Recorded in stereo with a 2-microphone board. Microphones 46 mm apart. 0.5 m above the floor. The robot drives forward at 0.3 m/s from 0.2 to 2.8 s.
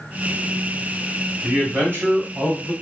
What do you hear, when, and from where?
1.4 s a man speaking: 40° right (ahead or behind), 1.6 m